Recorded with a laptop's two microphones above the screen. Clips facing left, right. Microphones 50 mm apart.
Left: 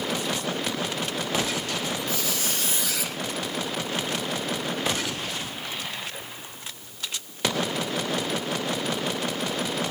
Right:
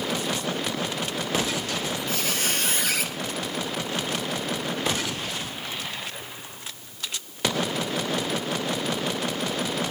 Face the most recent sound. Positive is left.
turn(degrees=-50)  # may be behind; listen again after turning